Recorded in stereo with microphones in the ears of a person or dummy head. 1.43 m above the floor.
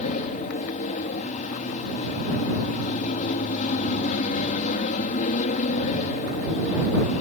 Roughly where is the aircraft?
Left.